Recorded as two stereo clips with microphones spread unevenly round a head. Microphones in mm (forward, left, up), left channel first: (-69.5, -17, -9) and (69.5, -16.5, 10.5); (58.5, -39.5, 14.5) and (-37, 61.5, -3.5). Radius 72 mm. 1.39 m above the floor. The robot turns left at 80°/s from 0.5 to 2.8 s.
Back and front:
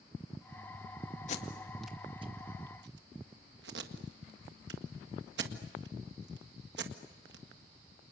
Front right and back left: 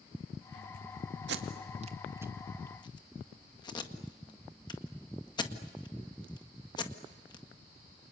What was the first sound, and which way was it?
Tape being pulled, 135° left.